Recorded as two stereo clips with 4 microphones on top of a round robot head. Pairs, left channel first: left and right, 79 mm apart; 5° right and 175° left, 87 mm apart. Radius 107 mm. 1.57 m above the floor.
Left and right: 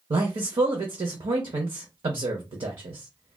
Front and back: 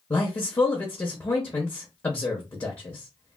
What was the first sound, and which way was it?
A man speaking, 70° right.